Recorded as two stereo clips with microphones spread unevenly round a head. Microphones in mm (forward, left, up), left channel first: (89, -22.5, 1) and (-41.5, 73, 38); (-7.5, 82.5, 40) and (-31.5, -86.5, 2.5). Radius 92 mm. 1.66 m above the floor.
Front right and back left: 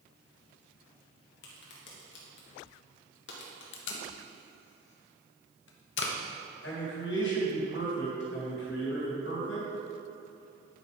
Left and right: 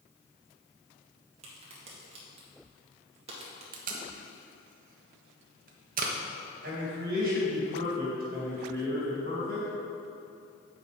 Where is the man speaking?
55° right, 3 m.